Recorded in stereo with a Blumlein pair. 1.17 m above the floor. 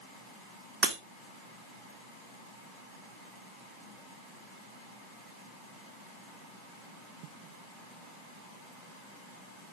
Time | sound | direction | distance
0.8 | breaking glass | 15° right | 1.5 m